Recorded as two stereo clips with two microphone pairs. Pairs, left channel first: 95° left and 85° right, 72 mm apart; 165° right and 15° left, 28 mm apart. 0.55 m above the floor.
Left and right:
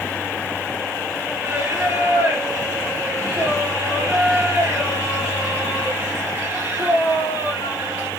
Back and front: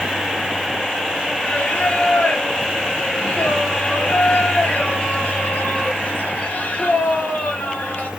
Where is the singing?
140° right, 2 m.